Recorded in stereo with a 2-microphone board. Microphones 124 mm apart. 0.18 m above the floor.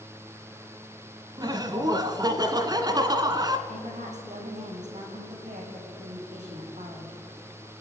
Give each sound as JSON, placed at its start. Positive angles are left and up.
{"t": 1.4, "sound": "laughter", "side_deg": -35, "distance_m": 1.8}
{"t": 3.7, "sound": "a woman speaking", "side_deg": -70, "distance_m": 8.5}